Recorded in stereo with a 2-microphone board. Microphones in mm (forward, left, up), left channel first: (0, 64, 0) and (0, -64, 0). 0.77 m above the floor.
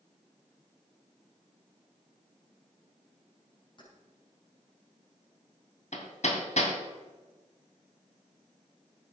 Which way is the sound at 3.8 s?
35° left (ahead or behind).